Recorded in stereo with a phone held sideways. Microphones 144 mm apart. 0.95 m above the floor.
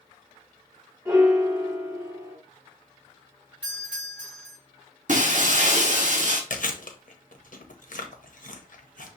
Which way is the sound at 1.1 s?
25° right (ahead or behind).